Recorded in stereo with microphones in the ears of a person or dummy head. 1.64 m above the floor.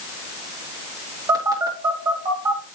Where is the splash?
No splash in this recording.